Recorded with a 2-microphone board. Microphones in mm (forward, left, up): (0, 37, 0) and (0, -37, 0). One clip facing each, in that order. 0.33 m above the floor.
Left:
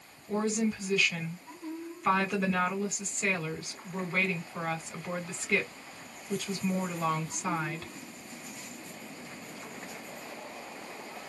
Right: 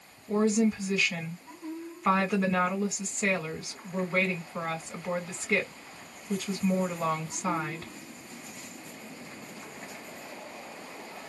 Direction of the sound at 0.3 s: 10° right (ahead or behind).